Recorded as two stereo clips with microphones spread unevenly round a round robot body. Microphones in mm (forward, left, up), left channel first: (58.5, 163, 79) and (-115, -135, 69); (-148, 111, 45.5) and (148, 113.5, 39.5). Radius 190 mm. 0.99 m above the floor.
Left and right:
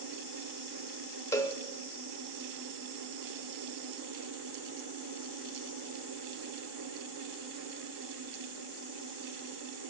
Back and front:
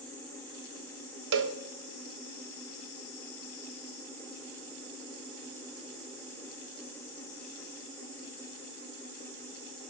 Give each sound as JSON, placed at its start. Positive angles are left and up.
{"t": 1.3, "sound": "a cowbell", "azimuth_deg": -15, "distance_m": 0.6}